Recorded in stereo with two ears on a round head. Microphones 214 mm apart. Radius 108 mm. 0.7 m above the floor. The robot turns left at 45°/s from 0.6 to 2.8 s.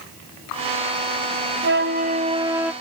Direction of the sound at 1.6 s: 125° right.